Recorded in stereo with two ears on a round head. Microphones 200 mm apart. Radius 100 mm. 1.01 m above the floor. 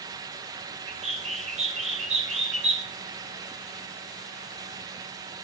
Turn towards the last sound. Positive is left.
turn(degrees=-30)  # may be behind; listen again after turning